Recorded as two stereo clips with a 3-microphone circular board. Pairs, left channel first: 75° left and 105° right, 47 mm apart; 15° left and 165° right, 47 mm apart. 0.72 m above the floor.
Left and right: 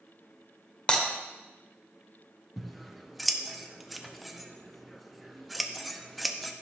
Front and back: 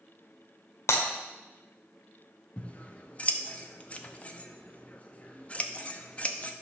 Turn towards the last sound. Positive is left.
turn(degrees=-15)